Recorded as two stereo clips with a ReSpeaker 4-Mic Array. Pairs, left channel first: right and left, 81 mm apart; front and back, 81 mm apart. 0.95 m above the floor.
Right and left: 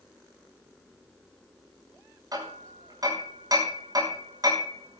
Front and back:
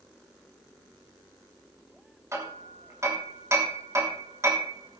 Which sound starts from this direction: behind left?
Hammering, at 2.3 s.